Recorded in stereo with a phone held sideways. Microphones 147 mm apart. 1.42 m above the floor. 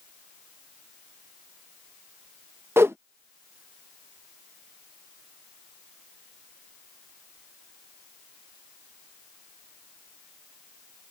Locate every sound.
2.8 s a whoosh: 15° right (ahead or behind)